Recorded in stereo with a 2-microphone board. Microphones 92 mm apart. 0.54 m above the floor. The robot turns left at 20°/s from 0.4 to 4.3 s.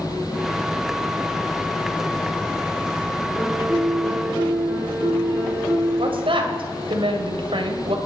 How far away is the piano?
About 7 m.